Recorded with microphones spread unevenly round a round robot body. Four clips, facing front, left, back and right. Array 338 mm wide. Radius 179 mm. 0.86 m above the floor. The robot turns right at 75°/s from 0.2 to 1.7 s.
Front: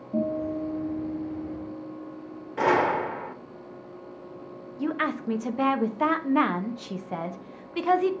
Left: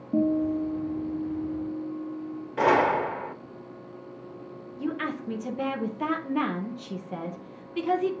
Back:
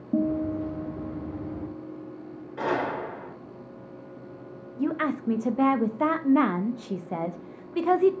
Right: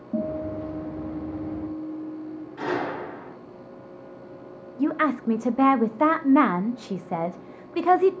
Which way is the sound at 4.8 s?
85° right.